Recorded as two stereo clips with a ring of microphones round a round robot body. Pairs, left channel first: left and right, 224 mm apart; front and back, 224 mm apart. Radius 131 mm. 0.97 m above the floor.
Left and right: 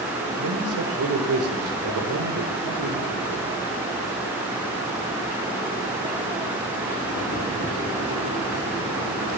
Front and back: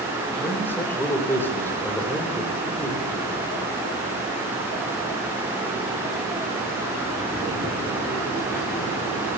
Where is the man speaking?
80° right, 4.5 m.